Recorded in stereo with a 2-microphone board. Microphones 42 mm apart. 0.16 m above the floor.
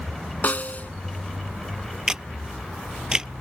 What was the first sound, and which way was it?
A snare drum, 40° left (ahead or behind).